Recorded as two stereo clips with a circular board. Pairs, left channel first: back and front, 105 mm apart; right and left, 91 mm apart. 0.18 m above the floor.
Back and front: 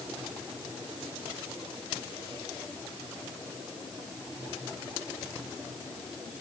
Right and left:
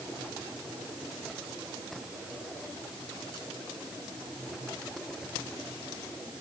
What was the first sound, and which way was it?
Only background noise.